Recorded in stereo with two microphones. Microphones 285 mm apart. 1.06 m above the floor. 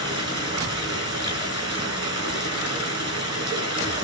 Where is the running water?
60° left (ahead or behind), 7 m.